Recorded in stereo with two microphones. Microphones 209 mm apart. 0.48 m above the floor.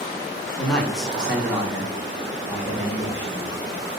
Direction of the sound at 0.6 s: 5° left (ahead or behind).